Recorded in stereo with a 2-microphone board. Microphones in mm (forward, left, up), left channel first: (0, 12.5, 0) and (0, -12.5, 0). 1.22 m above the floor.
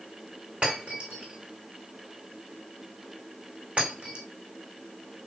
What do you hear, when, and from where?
0.6 s breaking glass: 55° right (ahead or behind), 3.5 m